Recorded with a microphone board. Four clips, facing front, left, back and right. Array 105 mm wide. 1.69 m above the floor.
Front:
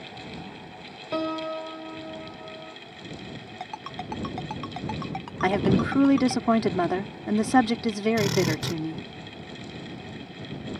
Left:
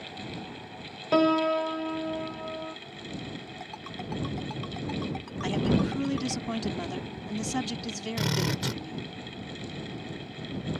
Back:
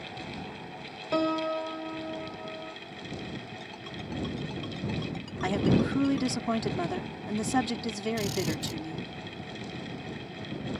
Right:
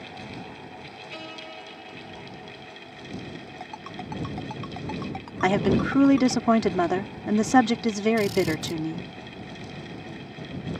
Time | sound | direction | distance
1.1 | a piano | 95° left | ?
3.6 | a ringtone | 15° right | ?
5.4 | a woman speaking | 55° right | ?
8.2 | a drill | 40° left | ?